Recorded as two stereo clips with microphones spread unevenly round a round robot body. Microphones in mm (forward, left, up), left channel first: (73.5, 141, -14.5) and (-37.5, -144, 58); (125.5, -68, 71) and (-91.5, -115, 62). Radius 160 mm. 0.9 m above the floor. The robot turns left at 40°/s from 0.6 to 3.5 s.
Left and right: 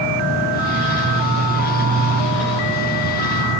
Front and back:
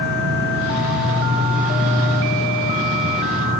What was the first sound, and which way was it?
An insect, 130° right.